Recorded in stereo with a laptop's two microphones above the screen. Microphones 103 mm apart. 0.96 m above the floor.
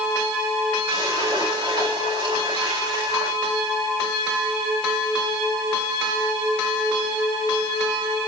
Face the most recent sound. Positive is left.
turn(degrees=-45)  # may be behind; listen again after turning